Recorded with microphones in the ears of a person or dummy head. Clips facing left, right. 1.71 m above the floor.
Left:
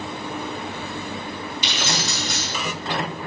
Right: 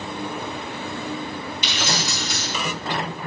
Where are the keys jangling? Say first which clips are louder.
Even; 40° left (ahead or behind), 1.2 m.